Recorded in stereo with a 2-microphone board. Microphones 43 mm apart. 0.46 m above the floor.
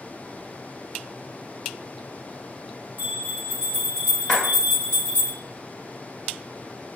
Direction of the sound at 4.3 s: 20° left (ahead or behind).